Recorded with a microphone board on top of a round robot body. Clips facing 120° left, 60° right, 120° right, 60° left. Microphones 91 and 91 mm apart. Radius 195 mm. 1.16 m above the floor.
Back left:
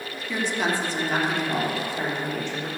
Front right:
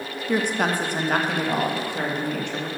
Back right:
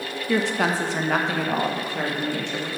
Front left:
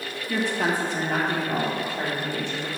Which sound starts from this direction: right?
A woman speaking, at 0.3 s.